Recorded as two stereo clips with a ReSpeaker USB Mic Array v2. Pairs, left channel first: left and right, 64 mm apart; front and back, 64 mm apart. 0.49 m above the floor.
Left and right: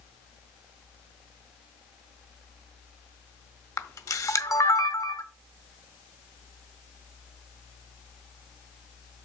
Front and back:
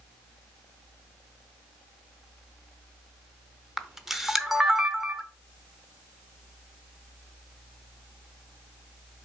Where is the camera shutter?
95° left, 0.7 m.